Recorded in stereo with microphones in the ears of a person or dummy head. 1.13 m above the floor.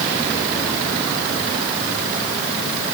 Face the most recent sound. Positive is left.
No sound to turn to.